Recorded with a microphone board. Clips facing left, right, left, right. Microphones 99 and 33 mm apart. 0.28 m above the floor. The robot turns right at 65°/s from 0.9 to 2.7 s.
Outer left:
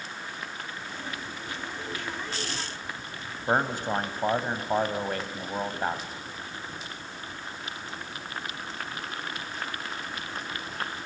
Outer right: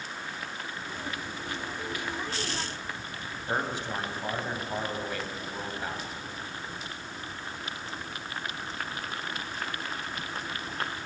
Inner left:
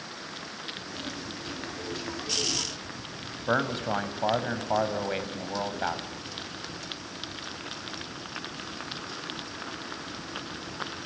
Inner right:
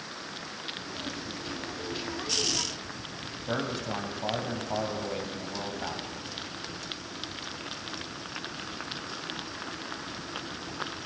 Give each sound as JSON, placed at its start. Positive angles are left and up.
{"t": 3.5, "sound": "a man speaking", "side_deg": 45, "distance_m": 1.4}